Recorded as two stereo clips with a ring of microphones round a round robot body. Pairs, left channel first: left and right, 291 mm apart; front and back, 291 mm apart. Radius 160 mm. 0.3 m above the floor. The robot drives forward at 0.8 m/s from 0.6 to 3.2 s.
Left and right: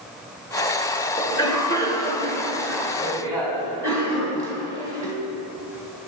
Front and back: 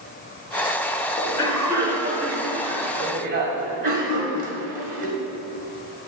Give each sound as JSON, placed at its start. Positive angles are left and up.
{"t": 1.2, "sound": "a cough", "azimuth_deg": 25, "distance_m": 0.9}